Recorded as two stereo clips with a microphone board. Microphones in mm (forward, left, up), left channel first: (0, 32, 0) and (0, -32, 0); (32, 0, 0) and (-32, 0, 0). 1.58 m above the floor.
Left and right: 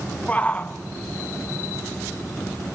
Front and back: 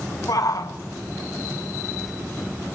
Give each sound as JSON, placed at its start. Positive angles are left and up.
{"t": 0.3, "sound": "a shout", "azimuth_deg": 20, "distance_m": 1.2}